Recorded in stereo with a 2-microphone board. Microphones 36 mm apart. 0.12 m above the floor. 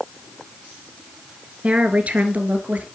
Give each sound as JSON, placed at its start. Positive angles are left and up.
{"t": 1.6, "sound": "a woman speaking", "side_deg": -35, "distance_m": 1.8}